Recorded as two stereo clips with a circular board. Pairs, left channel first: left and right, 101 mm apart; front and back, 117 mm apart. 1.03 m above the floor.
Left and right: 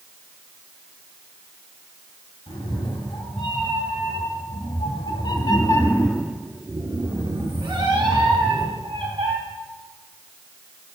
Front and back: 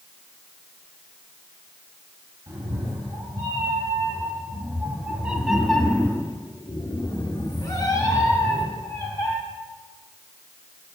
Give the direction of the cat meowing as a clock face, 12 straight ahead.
8 o'clock.